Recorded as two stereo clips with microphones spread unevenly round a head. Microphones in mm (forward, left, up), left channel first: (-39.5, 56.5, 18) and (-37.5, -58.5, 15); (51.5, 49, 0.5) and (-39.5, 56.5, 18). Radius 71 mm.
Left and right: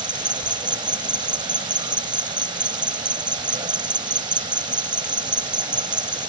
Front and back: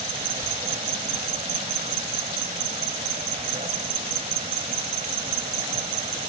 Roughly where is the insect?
Behind right.